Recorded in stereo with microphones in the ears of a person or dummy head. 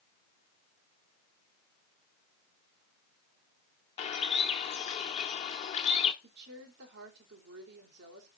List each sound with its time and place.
4.0 s a bird: 30° left (ahead or behind), 0.9 m
6.2 s a woman speaking: 60° right (ahead or behind), 2.5 m